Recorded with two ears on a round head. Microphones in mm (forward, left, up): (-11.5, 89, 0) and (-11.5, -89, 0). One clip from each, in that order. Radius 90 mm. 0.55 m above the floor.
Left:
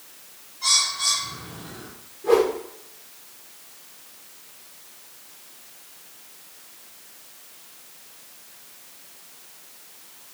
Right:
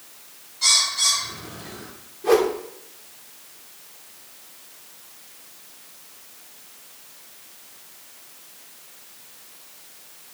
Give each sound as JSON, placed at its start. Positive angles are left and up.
{"t": 0.6, "sound": "a bird", "side_deg": -70, "distance_m": 4.0}
{"t": 2.2, "sound": "a whoosh", "side_deg": -40, "distance_m": 1.8}